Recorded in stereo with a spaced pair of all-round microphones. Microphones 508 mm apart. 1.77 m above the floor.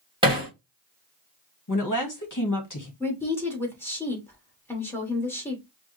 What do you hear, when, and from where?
0.2 s hammering: 10° right (ahead or behind), 2 m
1.7 s a woman speaking: 40° left (ahead or behind), 1.7 m
3.0 s a woman speaking: 5° left (ahead or behind), 2.5 m